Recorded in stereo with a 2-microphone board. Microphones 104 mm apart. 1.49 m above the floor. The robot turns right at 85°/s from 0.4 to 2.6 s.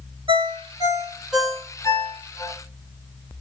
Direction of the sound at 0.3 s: 55° right (ahead or behind).